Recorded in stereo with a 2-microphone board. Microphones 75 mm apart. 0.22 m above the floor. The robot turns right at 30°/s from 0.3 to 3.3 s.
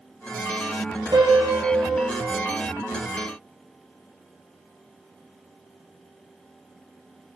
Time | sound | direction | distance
1.1 | a piano | 100° right | 2.5 m